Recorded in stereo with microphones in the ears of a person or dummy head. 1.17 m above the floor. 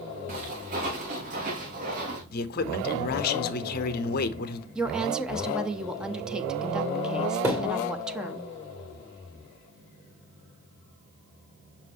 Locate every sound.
0.3 s footsteps: 45° right (ahead or behind), 4 m; by 2.2 s 50° right (ahead or behind), 3 m
2.3 s a man speaking: 50° left (ahead or behind), 0.9 m
4.8 s a woman speaking: 5° right (ahead or behind), 0.6 m
7.4 s a thud: 10° right (ahead or behind), 0.7 m